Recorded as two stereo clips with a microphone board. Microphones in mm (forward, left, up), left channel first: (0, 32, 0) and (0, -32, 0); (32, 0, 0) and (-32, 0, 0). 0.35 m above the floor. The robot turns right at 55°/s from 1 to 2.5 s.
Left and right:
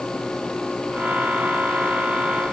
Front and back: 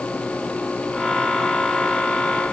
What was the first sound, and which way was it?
Only background noise.